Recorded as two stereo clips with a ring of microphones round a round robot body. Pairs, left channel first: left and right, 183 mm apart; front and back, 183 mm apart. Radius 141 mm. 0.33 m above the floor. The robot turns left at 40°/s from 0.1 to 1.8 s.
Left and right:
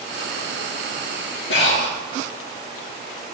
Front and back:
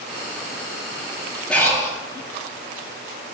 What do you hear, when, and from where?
1.5 s breathing: 85° left, 3 m; by 2.0 s 75° left, 3 m